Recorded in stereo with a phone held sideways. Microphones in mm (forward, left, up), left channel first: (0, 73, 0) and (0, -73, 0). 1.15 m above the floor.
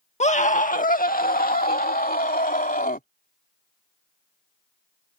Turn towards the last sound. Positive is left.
turn(degrees=75)  # may be behind; listen again after turning